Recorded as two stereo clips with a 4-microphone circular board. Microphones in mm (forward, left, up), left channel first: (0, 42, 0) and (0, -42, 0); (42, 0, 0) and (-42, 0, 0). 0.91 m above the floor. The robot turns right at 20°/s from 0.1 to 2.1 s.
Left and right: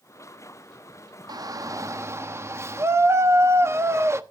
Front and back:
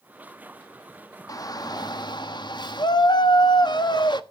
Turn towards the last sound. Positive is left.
turn(degrees=-30)